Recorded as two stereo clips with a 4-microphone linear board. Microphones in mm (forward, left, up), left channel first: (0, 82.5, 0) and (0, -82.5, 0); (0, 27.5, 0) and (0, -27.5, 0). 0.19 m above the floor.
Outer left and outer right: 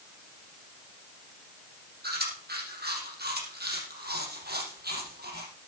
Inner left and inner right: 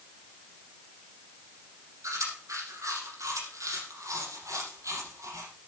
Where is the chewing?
75° right (ahead or behind), 6 m.